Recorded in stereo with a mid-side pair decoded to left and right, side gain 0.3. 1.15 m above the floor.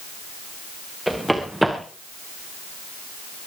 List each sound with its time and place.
1.1 s running footsteps: 10° right, 4.5 m